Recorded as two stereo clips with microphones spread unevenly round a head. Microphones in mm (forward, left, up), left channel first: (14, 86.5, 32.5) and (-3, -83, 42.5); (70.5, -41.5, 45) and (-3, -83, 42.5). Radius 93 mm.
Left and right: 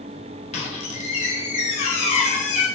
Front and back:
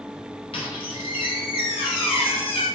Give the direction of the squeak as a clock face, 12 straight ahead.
11 o'clock.